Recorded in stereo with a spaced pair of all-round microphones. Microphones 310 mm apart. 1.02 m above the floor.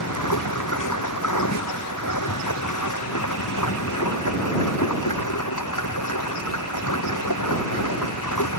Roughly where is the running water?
Left.